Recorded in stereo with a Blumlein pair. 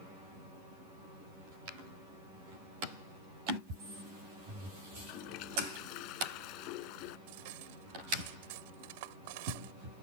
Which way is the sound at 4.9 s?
40° left.